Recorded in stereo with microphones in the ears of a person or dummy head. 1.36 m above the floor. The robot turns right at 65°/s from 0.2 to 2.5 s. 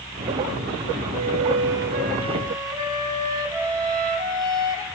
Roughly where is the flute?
Right.